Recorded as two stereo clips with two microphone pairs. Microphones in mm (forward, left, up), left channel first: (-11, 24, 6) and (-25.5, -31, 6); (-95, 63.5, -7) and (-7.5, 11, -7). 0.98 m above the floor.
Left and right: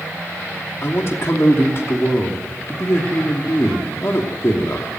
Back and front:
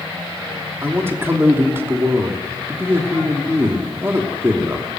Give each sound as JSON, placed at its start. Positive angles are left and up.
{"t": 0.8, "sound": "a man speaking", "azimuth_deg": 35, "distance_m": 3.0}